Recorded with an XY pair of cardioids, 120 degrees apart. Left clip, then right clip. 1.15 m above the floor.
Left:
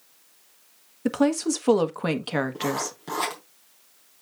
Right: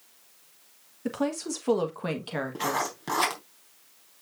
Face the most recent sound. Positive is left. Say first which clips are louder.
# even
turn(degrees=-25)